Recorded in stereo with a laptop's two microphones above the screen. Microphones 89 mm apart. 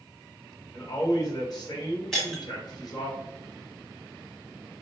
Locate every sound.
0.7 s a man speaking: 45° left (ahead or behind), 1.4 m
2.1 s breaking glass: 5° left (ahead or behind), 0.9 m